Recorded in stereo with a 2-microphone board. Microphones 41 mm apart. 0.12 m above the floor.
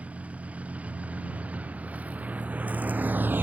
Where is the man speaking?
I don't hear a man speaking.